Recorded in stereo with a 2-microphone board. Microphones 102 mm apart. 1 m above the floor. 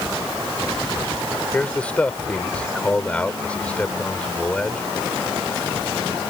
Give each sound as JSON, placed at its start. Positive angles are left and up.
{"t": 1.5, "sound": "a man speaking", "side_deg": 10}